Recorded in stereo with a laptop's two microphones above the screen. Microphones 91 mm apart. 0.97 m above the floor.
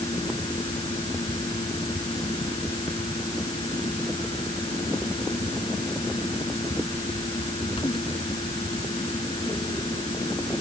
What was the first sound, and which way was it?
A fan, 65° left (ahead or behind).